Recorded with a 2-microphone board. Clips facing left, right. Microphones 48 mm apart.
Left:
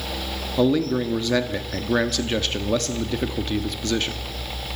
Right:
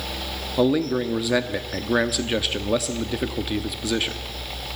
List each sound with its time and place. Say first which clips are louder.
0.6 s a man speaking: even; 5° right (ahead or behind), 1.0 m